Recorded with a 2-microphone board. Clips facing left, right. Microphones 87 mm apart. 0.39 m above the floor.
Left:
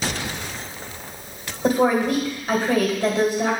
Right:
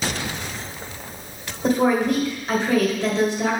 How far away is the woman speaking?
About 1.7 m.